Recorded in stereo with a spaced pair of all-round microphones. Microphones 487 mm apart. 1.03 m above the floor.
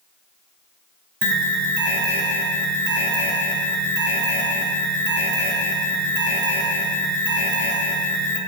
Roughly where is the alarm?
Right.